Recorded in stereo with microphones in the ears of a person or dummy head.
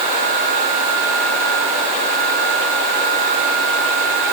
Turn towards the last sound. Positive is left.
No sound to turn to.